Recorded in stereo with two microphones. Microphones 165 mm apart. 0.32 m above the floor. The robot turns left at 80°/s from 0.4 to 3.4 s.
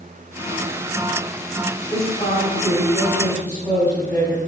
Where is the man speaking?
105° left, 2.5 m; by 4.4 s 15° right, 2.5 m.